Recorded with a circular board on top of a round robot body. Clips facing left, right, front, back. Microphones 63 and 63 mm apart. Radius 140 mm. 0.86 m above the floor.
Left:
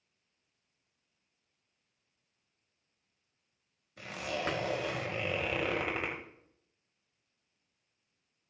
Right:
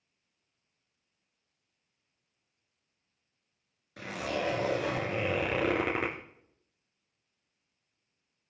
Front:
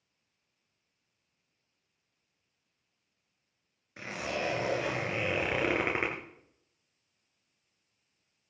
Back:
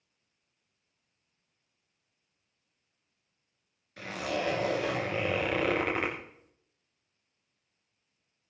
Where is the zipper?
70° right, 3 m.